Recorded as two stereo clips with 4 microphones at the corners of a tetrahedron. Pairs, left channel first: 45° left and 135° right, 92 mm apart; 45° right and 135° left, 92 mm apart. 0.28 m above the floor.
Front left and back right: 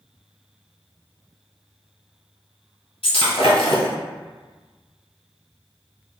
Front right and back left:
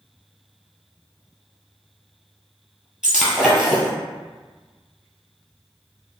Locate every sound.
3.0 s breaking glass: 50° left, 1.4 m